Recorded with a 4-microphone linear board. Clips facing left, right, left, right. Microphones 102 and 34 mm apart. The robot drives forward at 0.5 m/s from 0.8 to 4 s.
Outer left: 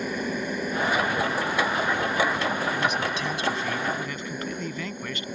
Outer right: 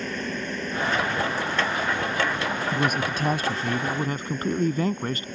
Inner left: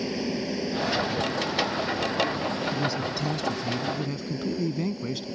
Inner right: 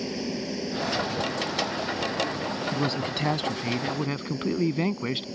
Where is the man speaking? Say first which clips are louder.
Outer right 1 dB, even; 50° right (ahead or behind); by 5.3 s 40° right (ahead or behind).